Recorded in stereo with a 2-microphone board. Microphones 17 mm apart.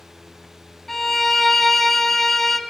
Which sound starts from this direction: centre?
A violin, at 0.9 s.